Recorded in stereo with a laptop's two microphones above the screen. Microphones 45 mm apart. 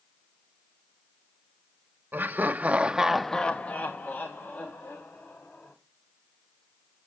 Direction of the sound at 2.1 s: 40° right (ahead or behind).